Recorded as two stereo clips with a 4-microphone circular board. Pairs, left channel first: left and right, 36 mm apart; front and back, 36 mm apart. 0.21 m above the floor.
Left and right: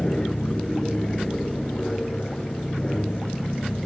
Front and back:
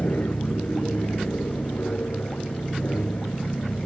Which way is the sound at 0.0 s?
20° left.